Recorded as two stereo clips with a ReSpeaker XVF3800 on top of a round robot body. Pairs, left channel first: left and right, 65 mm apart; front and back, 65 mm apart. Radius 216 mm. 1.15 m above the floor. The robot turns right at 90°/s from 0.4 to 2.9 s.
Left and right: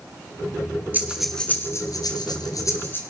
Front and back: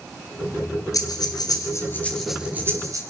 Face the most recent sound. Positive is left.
turn(degrees=145)